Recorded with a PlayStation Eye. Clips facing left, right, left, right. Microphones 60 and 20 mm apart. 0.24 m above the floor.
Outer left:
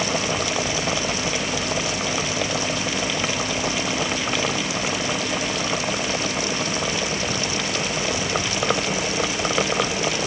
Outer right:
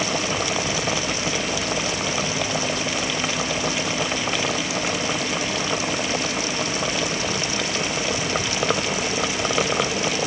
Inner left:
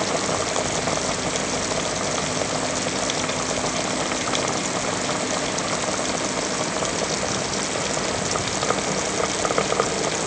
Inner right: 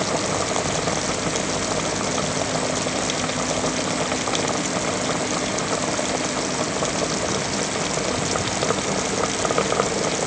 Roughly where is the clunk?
No clunk in this recording.